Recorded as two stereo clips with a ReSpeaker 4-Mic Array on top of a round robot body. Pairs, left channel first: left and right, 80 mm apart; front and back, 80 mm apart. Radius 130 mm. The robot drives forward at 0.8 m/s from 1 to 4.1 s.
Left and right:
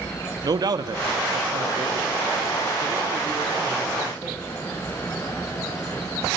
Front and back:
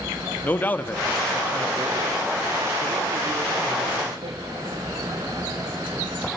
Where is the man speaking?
65° right, 1.1 m; by 4.4 s 160° right, 2.5 m.